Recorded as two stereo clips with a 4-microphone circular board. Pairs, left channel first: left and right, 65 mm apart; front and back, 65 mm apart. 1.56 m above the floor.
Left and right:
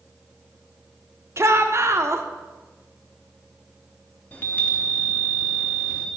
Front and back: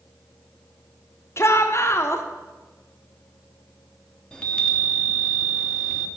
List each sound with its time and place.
1.4 s a shout: 45° right, 0.9 m
4.3 s a chime: 60° left, 1.1 m